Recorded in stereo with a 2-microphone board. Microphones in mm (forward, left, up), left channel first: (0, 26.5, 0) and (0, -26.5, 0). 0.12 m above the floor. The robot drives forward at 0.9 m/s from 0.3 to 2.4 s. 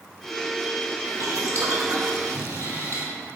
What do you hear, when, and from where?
1.0 s boiling: 55° right (ahead or behind), 1.9 m; by 3.1 s 65° right (ahead or behind), 1.7 m